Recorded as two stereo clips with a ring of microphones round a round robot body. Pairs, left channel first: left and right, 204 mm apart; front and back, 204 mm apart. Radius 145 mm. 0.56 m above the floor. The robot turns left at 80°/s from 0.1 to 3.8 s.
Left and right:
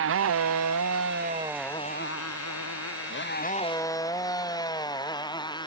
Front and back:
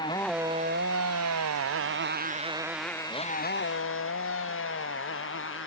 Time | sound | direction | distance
0.0 | a motorcycle | 75° right | ?